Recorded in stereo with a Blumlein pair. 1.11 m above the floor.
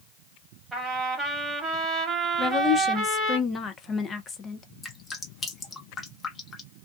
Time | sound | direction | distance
0.7 | a trumpet | 10° right | 1.2 m
2.4 | a woman speaking | 20° left | 0.6 m
4.8 | dripping | 15° left | 0.9 m